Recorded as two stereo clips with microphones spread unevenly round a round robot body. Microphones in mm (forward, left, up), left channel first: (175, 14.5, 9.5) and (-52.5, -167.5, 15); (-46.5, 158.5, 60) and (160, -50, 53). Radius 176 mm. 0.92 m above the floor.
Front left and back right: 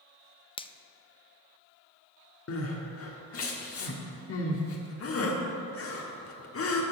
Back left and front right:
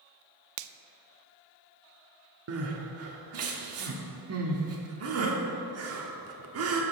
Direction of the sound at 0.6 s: 35° right.